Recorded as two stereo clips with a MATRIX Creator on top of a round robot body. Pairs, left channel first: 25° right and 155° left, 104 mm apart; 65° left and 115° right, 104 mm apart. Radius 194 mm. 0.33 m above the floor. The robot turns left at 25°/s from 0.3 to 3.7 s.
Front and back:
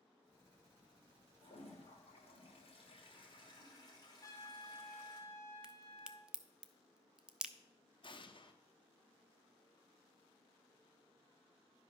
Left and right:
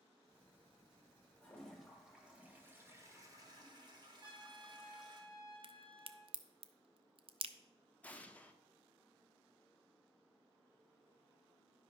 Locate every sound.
1.4 s a toilet flushing: 10° right, 2.5 m; by 5.2 s 70° right, 2.5 m
4.2 s a trumpet: 80° right, 3 m
5.6 s a crack: 125° right, 0.8 m
8.0 s an explosion: 5° right, 1.1 m